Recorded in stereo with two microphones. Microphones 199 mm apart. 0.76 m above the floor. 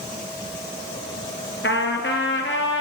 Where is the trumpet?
75° left (ahead or behind), 2.5 m.